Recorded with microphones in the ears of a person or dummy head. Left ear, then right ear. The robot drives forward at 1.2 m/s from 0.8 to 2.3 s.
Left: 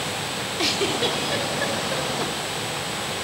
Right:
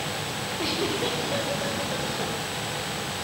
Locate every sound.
0.6 s a giggle: 55° left (ahead or behind), 4 m; by 2.3 s 85° left, 3.5 m